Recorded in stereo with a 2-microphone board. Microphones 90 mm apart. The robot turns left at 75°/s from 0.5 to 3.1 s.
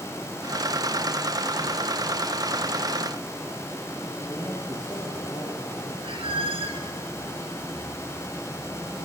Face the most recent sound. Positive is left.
turn(degrees=-80)